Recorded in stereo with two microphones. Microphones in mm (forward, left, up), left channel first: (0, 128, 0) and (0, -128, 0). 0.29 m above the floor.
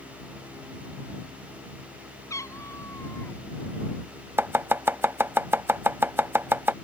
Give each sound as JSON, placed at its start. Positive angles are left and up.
{"t": 2.3, "sound": "a cat meowing", "side_deg": 10}
{"t": 4.4, "sound": "chopping", "side_deg": -10}